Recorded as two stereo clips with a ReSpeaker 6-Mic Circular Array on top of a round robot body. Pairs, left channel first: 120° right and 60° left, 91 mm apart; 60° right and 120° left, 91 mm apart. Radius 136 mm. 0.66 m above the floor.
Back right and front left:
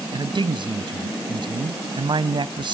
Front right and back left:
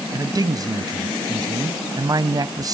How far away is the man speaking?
About 0.8 m.